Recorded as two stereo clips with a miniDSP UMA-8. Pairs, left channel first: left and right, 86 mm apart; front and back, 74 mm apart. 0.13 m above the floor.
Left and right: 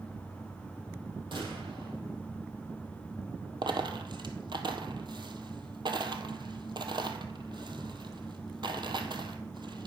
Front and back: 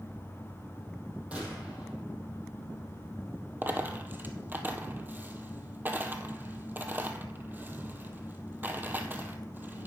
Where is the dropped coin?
115° right, 1.1 m.